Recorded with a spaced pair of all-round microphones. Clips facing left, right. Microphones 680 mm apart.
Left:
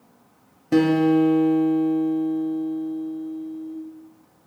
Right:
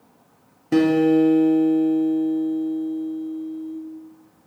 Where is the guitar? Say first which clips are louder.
Right 1 dB; 5° left (ahead or behind), 0.7 m.